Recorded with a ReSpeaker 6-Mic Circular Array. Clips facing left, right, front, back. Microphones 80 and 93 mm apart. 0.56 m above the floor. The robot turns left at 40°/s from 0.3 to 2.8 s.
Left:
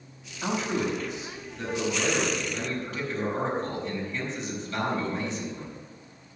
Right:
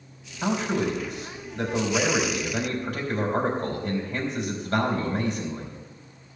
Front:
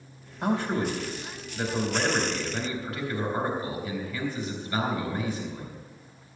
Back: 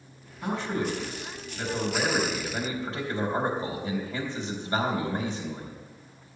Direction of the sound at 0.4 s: 25° right.